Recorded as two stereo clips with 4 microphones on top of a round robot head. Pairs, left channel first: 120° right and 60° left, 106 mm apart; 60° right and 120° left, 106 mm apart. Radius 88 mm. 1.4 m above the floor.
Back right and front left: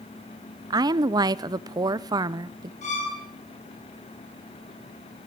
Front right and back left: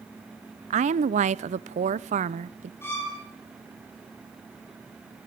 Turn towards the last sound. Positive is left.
turn(degrees=-130)